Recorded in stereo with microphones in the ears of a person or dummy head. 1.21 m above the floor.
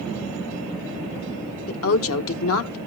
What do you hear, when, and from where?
1.7 s a woman speaking: 70° left (ahead or behind), 1.4 m